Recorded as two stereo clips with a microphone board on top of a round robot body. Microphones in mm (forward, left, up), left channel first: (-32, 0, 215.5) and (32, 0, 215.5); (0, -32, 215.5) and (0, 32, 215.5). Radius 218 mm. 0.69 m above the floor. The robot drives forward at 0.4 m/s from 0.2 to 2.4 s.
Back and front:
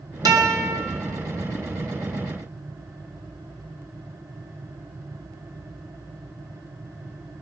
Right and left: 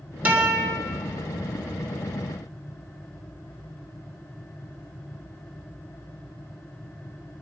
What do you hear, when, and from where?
0.2 s a guitar: 25° left, 2.5 m